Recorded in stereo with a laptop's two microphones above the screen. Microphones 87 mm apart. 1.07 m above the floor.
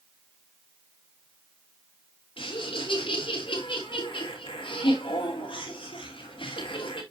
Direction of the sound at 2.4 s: 80° left.